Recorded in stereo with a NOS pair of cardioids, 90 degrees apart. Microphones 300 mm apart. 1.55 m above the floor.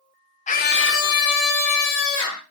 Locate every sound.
0.5 s a scream: 25° left, 0.6 m; by 2.4 s 75° left, 1.4 m